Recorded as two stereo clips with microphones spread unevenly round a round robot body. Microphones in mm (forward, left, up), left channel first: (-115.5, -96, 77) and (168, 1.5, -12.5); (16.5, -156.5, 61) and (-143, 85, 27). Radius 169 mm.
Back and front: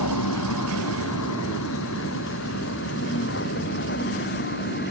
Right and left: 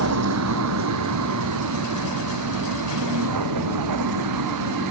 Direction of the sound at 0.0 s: 155° left.